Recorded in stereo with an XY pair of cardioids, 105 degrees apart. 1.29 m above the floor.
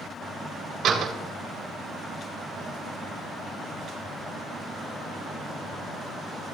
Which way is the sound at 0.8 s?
60° right.